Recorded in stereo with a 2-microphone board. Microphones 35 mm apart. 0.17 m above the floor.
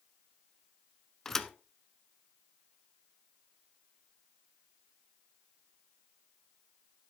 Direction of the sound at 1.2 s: 10° left (ahead or behind).